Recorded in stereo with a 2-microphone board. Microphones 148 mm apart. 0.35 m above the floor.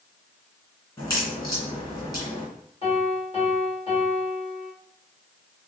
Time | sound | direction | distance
1.0 | a crack | 25° left (ahead or behind) | 2.5 m
2.8 | a piano | 40° left (ahead or behind) | 1.8 m